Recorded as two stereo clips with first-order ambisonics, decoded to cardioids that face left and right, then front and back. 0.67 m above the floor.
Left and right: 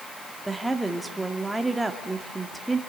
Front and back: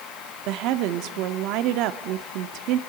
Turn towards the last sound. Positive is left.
turn(degrees=-175)